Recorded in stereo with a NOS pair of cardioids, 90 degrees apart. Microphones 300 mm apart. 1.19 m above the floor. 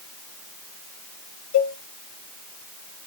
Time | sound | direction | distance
1.5 | a cowbell | 60° left | 1.2 m